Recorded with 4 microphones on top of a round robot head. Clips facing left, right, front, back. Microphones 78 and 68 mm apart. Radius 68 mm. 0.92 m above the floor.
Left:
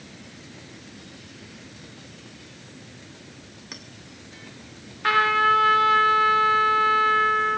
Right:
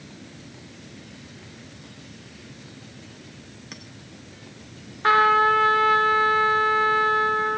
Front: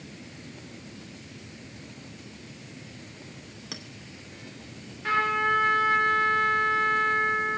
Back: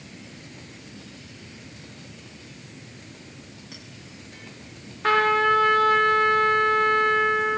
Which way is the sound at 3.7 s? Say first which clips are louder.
Left 1 dB, front 5 dB; 5° left.